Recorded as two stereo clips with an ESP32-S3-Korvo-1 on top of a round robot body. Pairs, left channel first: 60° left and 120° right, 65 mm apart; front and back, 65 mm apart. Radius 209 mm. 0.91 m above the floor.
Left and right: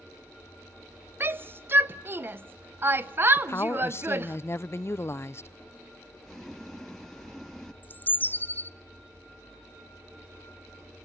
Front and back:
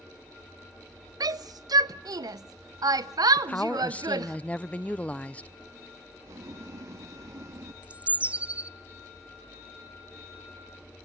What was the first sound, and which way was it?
A shout, 175° right.